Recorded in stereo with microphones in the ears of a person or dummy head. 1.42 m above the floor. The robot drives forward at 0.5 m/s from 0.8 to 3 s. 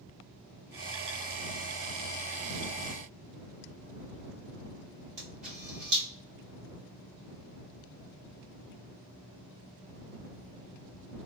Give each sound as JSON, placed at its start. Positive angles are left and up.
{"t": 5.2, "sound": "a camera shutter", "side_deg": -35, "distance_m": 1.5}